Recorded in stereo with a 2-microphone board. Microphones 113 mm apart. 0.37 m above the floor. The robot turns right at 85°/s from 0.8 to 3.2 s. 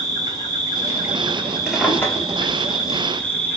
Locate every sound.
0.0 s an insect: 40° right, 0.8 m; by 3.6 s 165° left, 0.8 m
1.7 s a drawer: 10° right (ahead or behind), 0.8 m; by 2.5 s 50° left (ahead or behind), 0.8 m